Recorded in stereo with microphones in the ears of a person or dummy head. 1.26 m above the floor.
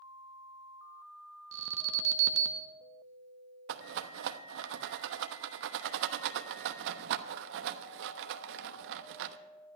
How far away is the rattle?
About 0.9 m.